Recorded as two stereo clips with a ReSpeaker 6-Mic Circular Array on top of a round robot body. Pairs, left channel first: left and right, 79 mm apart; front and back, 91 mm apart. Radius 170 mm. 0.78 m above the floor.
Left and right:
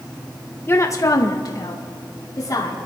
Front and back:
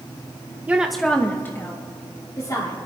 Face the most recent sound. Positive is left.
turn(degrees=50)